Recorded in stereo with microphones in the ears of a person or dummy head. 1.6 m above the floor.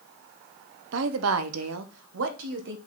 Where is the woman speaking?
65° right (ahead or behind), 0.9 m.